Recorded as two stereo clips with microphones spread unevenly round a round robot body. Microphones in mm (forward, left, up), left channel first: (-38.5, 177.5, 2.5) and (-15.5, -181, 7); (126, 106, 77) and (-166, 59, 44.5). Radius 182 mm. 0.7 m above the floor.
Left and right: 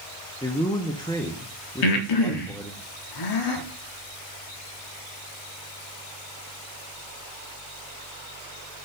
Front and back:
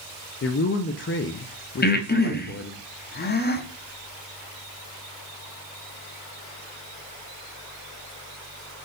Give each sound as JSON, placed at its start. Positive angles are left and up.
{"t": 0.4, "sound": "a man speaking", "azimuth_deg": 25, "distance_m": 0.6}
{"t": 1.8, "sound": "breathing", "azimuth_deg": 70, "distance_m": 0.9}